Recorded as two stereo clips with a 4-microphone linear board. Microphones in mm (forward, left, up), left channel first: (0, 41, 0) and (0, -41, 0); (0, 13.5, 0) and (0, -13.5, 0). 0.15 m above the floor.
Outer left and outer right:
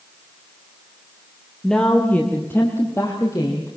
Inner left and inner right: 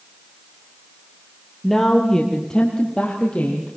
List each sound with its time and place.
1.6 s a woman speaking: 5° left (ahead or behind), 3 m; by 3.7 s 40° left (ahead or behind), 4.5 m